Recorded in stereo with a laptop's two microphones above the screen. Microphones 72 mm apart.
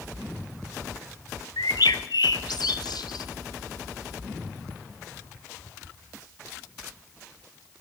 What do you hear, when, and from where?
1.6 s a bird: 80° left, 0.8 m